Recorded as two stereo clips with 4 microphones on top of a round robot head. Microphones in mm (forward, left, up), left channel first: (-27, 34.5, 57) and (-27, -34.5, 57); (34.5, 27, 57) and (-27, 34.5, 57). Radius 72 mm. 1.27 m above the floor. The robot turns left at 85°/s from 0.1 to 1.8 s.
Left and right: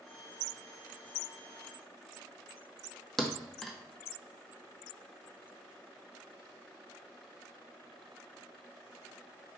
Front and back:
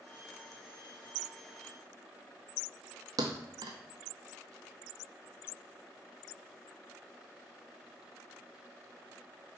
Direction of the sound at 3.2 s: 175° left.